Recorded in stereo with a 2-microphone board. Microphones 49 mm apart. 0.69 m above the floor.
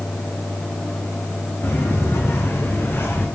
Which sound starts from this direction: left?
Footsteps, at 1.6 s.